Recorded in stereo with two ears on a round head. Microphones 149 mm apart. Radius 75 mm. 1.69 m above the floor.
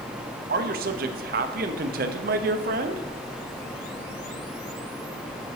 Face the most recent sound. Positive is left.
turn(degrees=-60)  # may be behind; listen again after turning